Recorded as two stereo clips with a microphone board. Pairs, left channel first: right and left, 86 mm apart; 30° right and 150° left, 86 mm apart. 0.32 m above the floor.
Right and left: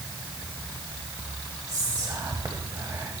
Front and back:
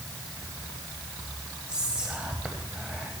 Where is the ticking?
No ticking in this recording.